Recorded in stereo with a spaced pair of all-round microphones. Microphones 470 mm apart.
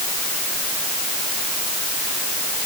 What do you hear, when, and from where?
Only background noise.